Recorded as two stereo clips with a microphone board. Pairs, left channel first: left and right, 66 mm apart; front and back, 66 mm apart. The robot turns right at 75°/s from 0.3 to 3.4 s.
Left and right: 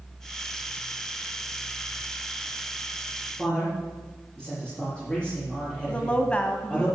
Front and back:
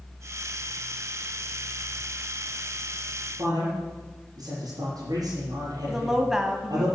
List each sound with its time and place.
3.4 s a man speaking: 165° left, 5.5 m
5.9 s a woman speaking: 110° left, 1.2 m